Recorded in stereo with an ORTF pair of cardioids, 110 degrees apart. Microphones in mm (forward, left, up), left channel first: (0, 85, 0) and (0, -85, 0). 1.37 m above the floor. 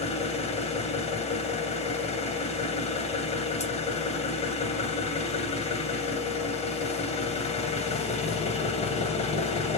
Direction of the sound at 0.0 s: 40° left.